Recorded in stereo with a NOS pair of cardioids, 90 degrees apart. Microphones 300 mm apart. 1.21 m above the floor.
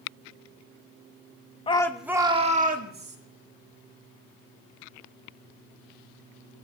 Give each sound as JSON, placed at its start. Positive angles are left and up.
{"t": 1.7, "sound": "a shout", "azimuth_deg": 20, "distance_m": 1.0}